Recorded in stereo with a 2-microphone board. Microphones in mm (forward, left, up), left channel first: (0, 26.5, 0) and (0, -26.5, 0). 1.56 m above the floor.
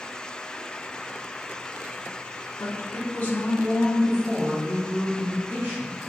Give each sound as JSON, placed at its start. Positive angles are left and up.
{"t": 2.6, "sound": "a woman speaking", "side_deg": 55, "distance_m": 1.1}